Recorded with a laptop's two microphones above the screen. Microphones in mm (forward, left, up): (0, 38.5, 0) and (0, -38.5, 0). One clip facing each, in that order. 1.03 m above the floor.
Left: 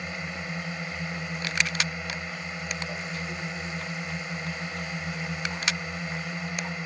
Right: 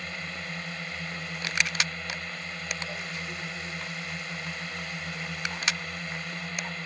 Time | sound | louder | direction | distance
0.0 | a drone | left 2 dB | 15° left (ahead or behind) | ?